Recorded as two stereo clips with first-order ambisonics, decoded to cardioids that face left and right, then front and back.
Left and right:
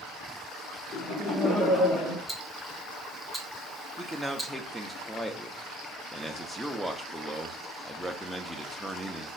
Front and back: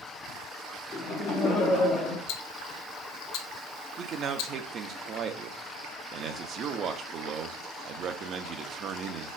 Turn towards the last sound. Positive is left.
turn(degrees=180)